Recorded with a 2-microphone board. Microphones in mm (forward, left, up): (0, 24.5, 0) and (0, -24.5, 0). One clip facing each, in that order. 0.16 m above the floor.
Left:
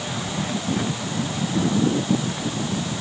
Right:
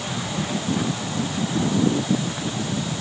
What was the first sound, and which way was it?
Only background noise.